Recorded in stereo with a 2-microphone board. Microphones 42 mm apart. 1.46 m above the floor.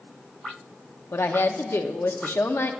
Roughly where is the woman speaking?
Left.